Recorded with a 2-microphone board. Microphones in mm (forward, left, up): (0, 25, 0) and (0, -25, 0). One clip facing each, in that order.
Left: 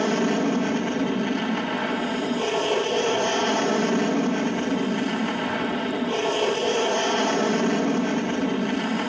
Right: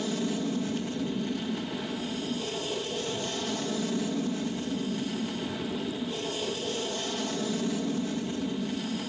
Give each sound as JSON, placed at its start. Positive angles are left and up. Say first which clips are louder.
{"t": 0.0, "sound": "an aircraft", "louder": "left 8 dB", "side_deg": 60}